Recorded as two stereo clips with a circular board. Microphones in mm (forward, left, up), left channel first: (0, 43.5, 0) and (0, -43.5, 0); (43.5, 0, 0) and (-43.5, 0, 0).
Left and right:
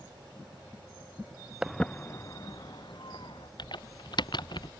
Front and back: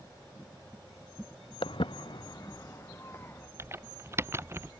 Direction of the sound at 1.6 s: 10° right.